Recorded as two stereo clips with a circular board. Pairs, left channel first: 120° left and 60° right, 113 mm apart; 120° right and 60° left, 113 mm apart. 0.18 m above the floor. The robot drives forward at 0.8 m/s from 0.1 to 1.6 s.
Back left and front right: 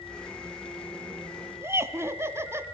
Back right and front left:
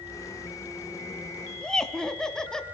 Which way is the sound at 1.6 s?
45° right.